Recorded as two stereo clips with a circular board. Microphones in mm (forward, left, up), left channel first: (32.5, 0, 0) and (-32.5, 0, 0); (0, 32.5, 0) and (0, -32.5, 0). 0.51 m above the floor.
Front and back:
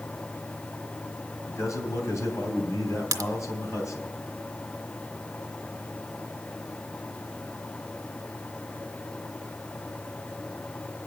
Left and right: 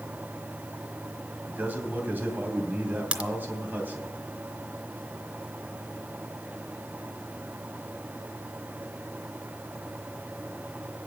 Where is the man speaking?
30° right, 2.5 m.